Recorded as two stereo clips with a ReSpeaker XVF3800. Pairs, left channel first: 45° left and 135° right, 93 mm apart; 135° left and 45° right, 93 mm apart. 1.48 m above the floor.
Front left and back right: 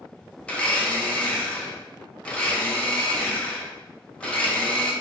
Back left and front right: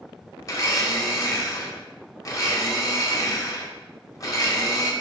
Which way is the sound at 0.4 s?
115° left.